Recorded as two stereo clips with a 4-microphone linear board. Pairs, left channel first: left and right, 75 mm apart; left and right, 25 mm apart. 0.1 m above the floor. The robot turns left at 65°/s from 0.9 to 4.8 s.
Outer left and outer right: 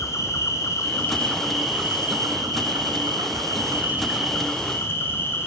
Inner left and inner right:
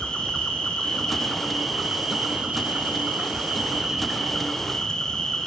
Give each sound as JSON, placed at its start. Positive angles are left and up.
{"t": 0.0, "sound": "an insect", "azimuth_deg": 40, "distance_m": 0.9}